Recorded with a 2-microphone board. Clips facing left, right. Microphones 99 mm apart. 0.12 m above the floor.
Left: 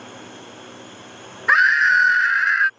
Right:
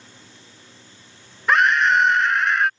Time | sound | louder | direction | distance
0.0 | a drone | left 11 dB | 65° left (ahead or behind) | ?
1.5 | a scream | even | 5° left (ahead or behind) | ?